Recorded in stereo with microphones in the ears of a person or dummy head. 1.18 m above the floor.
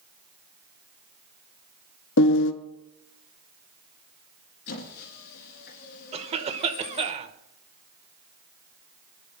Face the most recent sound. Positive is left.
turn(degrees=-30)  # may be behind; listen again after turning